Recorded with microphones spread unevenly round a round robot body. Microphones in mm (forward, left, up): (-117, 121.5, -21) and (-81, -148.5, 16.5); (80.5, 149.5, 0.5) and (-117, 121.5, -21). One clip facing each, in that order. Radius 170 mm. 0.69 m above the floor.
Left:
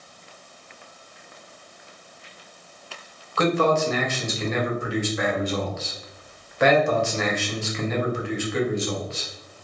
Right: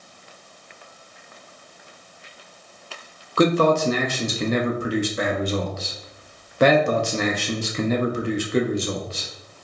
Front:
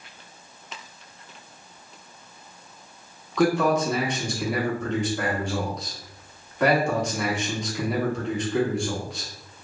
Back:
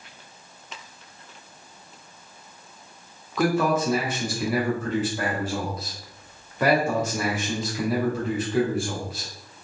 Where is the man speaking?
100° right, 0.5 m.